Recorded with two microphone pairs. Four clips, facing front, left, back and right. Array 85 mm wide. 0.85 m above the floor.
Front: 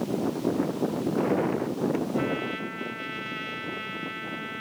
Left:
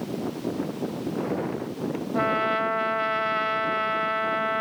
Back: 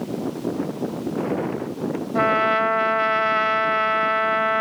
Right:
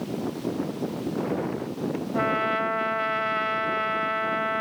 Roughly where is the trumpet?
Behind.